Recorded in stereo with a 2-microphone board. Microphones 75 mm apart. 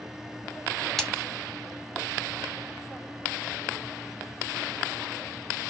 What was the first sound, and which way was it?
A splash, 5° left (ahead or behind).